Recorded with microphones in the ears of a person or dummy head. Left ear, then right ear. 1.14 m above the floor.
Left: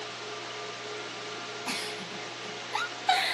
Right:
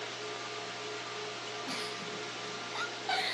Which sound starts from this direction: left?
A giggle, at 1.7 s.